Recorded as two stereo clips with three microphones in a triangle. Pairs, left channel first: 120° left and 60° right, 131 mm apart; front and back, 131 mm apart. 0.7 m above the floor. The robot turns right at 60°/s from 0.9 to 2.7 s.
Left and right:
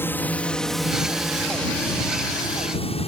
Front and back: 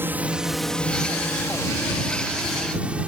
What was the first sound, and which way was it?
A drone, 150° left.